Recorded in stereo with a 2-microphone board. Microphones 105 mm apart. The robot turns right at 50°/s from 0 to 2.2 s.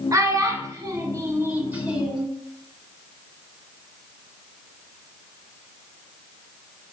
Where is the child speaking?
30° right (ahead or behind), 0.9 m; by 2.3 s 5° right (ahead or behind), 0.9 m.